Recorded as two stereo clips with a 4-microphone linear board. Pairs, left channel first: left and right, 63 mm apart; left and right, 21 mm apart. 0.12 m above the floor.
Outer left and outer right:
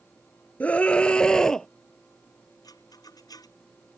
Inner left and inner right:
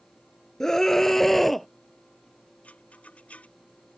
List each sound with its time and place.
0.6 s a scream: 20° left (ahead or behind); by 1.7 s 10° left (ahead or behind)
2.6 s a rattle: 75° left (ahead or behind)